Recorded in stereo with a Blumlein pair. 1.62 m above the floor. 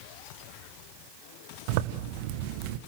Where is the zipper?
45° right, 1.7 m.